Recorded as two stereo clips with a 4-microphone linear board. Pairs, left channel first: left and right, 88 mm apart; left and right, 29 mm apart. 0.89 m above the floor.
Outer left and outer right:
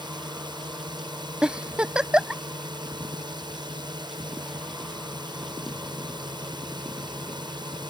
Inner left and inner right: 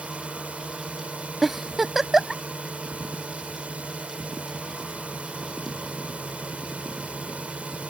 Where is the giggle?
10° right (ahead or behind).